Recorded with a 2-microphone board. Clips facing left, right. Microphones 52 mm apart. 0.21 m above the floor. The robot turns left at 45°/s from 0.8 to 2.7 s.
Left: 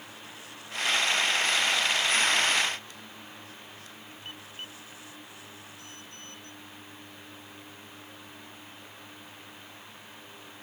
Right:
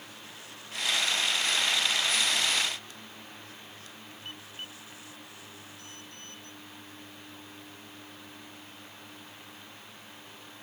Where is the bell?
No bell in this recording.